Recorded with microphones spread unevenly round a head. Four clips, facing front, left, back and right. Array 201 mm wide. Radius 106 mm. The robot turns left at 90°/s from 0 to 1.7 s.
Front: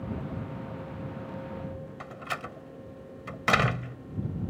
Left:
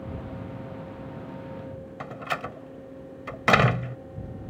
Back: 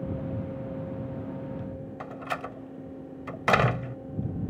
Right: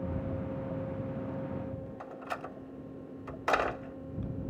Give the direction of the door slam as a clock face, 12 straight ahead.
9 o'clock.